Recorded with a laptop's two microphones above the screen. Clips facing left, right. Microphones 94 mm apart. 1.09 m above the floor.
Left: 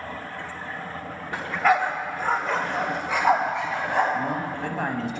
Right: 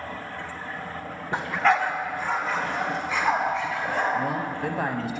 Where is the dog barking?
25° right (ahead or behind), 0.8 m; by 4.0 s 80° left, 3 m.